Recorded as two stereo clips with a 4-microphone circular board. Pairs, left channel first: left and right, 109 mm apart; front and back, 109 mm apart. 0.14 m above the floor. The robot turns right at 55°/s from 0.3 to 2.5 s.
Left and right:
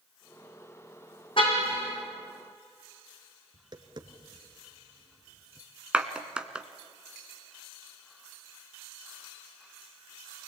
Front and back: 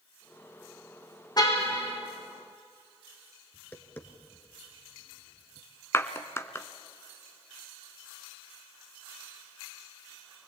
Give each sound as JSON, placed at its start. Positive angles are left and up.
{"t": 1.4, "sound": "a car horn", "azimuth_deg": 50, "distance_m": 5.0}
{"t": 3.5, "sound": "tapping", "azimuth_deg": -65, "distance_m": 1.6}
{"t": 5.9, "sound": "a clap", "azimuth_deg": -20, "distance_m": 1.1}